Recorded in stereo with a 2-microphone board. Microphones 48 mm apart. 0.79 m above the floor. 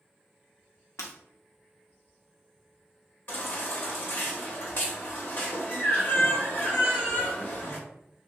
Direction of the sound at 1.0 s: 75° left (ahead or behind).